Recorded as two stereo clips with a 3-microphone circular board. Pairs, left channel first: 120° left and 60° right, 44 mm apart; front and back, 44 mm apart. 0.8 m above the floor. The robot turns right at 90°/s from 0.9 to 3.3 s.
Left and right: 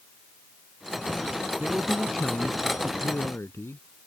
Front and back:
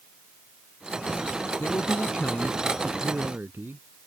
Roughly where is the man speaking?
Ahead.